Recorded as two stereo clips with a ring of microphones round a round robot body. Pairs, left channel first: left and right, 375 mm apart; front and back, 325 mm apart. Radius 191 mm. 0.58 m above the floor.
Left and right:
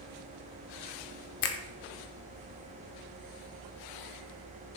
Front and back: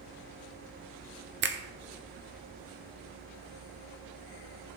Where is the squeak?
No squeak in this recording.